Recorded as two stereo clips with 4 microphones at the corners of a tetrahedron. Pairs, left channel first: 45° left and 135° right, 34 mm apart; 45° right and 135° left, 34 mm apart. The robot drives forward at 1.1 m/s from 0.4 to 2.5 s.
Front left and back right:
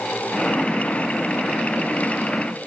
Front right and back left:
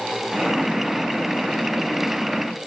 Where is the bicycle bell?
No bicycle bell in this recording.